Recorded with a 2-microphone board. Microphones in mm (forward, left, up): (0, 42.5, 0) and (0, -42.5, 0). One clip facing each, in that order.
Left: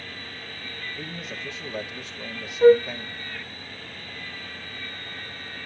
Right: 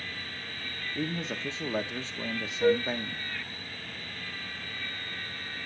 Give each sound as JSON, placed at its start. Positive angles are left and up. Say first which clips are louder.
{"t": 0.9, "sound": "a man speaking", "louder": "right 3 dB", "side_deg": -30, "distance_m": 1.2}
{"t": 2.6, "sound": "a flute", "louder": "left 10 dB", "side_deg": 35, "distance_m": 0.6}